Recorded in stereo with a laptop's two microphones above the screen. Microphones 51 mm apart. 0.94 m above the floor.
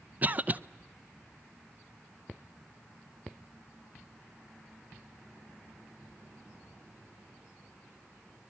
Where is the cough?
35° right (ahead or behind), 0.5 m.